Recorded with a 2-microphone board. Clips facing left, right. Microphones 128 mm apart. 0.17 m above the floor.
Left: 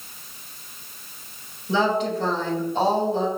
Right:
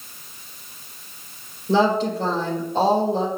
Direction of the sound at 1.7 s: 35° right (ahead or behind).